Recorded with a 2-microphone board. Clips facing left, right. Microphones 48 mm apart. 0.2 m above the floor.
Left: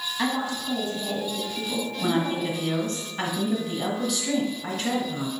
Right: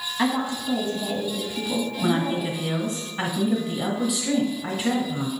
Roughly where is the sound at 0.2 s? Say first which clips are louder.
Right 3 dB; centre.